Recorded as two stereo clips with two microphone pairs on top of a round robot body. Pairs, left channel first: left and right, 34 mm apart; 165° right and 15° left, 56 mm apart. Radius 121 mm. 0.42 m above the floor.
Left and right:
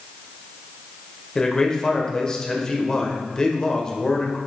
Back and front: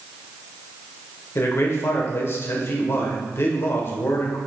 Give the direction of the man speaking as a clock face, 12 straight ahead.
7 o'clock.